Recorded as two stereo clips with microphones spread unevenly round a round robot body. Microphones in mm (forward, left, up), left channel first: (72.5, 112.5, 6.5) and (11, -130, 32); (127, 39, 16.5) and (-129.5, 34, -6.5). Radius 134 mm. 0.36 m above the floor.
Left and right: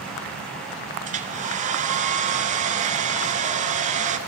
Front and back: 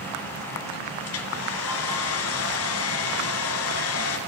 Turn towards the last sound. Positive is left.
turn(degrees=-40)